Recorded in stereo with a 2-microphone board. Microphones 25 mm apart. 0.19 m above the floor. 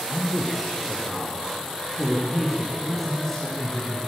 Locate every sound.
0.1 s a man speaking: centre (ahead or behind), 4.5 m; by 4.0 s 35° left (ahead or behind), 6.5 m